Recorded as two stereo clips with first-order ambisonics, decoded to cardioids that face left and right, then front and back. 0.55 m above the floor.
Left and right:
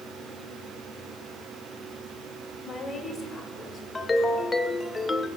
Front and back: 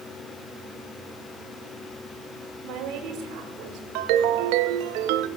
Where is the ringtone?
170° left, 0.5 m.